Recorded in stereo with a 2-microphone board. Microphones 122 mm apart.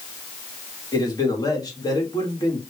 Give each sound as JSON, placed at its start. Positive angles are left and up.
{"t": 0.9, "sound": "a man speaking", "side_deg": 30, "distance_m": 1.3}